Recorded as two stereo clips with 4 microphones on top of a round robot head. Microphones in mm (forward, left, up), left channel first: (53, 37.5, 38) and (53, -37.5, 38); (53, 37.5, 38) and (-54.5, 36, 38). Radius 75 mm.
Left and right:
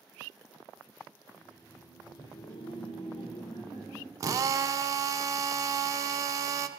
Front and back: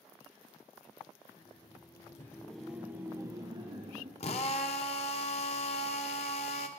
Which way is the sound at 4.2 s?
45° right.